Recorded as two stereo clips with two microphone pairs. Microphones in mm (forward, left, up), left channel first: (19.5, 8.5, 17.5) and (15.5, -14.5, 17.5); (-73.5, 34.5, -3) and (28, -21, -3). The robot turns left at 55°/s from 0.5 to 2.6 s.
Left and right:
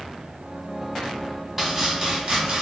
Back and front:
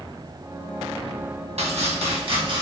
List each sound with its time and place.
1.6 s chopping: 25° right, 0.7 m; by 2.6 s 80° right, 0.7 m